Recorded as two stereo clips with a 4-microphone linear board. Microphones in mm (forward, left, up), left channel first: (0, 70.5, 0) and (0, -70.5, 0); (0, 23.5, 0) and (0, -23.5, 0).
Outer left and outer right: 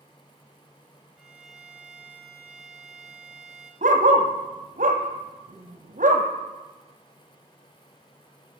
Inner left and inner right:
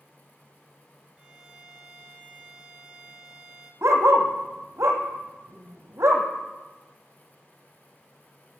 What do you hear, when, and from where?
1.2 s a violin: 10° right (ahead or behind), 1.7 m
3.8 s a dog barking: 70° right (ahead or behind), 1.3 m